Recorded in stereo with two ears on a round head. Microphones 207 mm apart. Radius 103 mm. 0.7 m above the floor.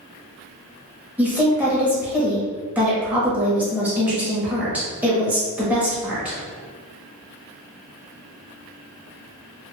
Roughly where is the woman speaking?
Centre.